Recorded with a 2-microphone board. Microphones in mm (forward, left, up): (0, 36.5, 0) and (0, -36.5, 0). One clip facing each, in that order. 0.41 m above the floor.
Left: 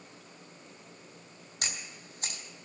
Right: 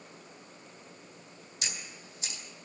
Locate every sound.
1.6 s a camera shutter: 60° left (ahead or behind), 3 m